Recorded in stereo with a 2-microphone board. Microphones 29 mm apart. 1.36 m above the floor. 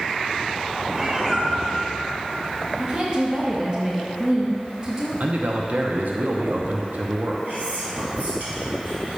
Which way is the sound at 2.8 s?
30° right (ahead or behind).